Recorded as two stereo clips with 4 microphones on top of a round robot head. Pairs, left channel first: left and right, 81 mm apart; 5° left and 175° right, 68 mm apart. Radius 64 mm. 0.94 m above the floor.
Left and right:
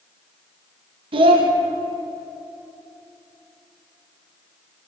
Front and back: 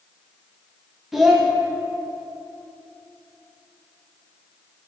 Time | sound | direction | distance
1.1 | a child speaking | 90° right | 0.7 m